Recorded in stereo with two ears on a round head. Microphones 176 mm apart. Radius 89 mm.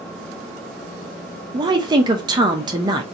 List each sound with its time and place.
1.5 s a woman speaking: 20° right (ahead or behind), 0.6 m